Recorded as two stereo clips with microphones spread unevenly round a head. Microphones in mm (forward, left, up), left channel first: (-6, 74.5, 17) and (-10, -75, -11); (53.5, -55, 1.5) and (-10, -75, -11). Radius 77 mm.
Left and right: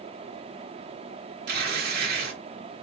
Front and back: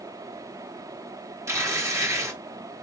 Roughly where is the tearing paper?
Behind right.